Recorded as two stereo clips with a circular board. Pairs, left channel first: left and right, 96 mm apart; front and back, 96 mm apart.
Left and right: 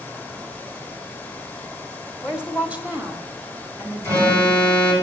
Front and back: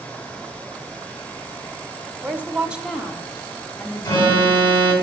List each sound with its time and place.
2.2 s a woman speaking: 165° right, 1.1 m; by 5.0 s 55° right, 1.6 m
4.0 s an alarm: 50° right, 3 m